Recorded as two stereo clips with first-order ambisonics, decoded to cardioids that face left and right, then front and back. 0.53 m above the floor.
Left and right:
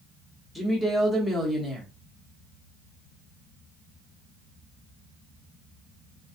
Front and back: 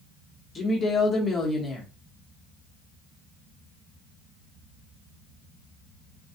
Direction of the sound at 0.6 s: 20° left.